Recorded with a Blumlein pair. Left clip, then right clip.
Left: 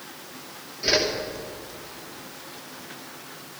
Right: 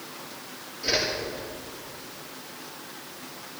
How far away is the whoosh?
About 2.5 m.